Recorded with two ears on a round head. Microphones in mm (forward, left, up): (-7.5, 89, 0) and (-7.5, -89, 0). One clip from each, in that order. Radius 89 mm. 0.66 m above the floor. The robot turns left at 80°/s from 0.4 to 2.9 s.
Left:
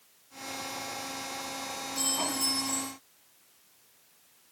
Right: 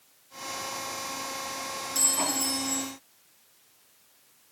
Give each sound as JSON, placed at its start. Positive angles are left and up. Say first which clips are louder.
{"t": 1.9, "sound": "a clink", "louder": "right 3 dB", "azimuth_deg": -120, "distance_m": 3.5}